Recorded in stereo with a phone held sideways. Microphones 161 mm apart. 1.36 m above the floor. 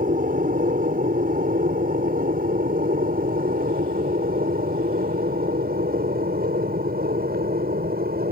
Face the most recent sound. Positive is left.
turn(degrees=-70)  # may be behind; listen again after turning